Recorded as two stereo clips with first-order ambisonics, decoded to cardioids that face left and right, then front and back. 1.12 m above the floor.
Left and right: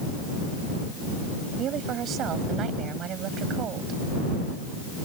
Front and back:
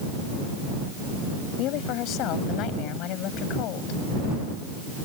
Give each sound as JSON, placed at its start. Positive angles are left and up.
{"t": 1.6, "sound": "a woman speaking", "azimuth_deg": -35}